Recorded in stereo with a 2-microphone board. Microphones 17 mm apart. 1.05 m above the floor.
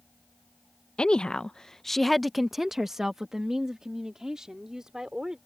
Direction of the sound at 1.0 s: 65° left (ahead or behind).